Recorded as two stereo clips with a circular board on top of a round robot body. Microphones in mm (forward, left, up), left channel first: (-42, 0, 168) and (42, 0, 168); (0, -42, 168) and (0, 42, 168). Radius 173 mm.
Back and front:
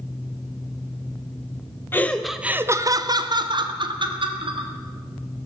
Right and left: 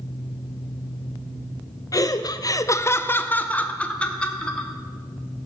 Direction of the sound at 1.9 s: 120° right.